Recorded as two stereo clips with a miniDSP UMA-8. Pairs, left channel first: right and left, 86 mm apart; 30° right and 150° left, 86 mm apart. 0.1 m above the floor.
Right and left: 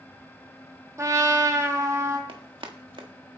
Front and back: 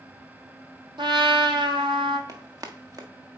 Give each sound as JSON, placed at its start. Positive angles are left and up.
{"t": 1.0, "sound": "a trumpet", "azimuth_deg": 140, "distance_m": 1.2}
{"t": 2.3, "sound": "running footsteps", "azimuth_deg": 105, "distance_m": 1.5}